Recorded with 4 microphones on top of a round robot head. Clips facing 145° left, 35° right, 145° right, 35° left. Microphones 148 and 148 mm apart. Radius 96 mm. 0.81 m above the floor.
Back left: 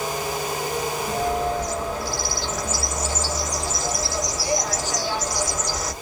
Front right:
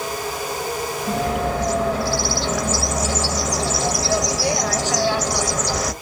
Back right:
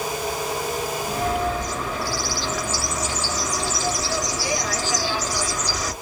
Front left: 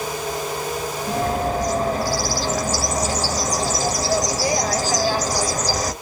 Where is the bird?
15° right, 0.7 m.